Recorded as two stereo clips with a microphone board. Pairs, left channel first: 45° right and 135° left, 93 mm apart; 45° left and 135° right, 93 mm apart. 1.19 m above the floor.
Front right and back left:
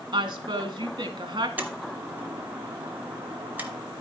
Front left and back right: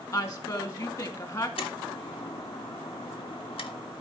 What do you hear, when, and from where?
0.1 s a woman speaking: 95° left, 1.8 m
1.6 s a door slam: 65° left, 1.3 m